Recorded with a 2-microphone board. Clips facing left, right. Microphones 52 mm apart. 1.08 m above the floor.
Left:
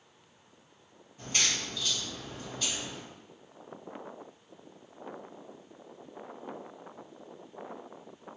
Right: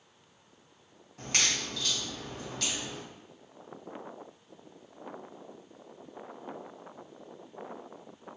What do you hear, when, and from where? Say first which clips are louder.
1.2 s a crack: right 1 dB; 80° right, 0.8 m